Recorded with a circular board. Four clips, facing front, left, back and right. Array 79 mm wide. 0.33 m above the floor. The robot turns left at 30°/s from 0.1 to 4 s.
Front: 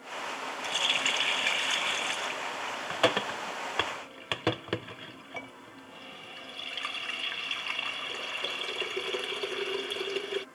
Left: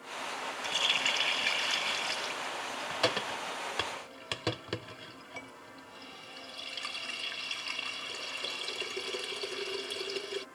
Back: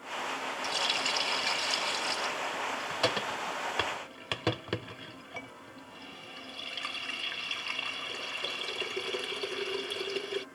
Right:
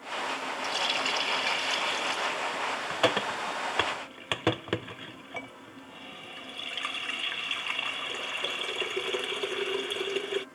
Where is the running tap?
30° left; by 10.4 s 70° right.